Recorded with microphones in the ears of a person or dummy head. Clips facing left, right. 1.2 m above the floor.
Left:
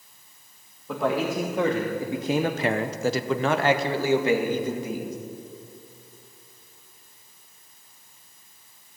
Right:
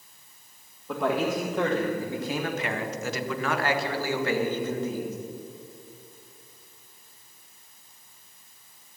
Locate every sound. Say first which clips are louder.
0.9 s a man speaking: left 1 dB; centre (ahead or behind), 1.7 m; by 5.2 s 15° left (ahead or behind), 2 m